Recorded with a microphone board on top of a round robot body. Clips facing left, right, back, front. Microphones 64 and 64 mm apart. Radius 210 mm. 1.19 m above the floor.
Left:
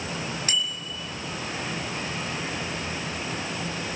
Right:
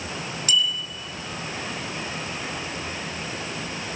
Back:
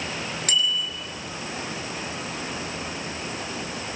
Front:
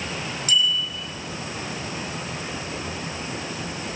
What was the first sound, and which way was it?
A bicycle bell, 145° left.